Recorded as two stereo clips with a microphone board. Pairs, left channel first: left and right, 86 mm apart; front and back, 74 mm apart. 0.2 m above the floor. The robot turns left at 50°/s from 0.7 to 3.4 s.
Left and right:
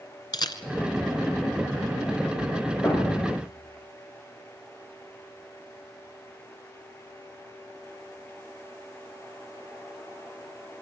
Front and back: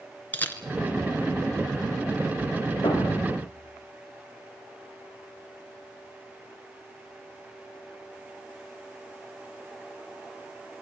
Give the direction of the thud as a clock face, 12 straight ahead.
11 o'clock.